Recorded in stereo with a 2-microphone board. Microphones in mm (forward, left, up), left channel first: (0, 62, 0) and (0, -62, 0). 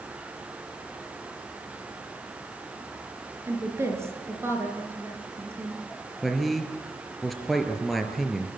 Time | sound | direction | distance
3.5 | a woman speaking | 20° right (ahead or behind) | 4 m
6.2 | a man speaking | centre (ahead or behind) | 3.5 m